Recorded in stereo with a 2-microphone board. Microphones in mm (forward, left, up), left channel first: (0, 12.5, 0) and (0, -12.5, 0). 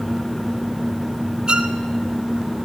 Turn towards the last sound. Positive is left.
turn(degrees=-30)  # may be behind; listen again after turning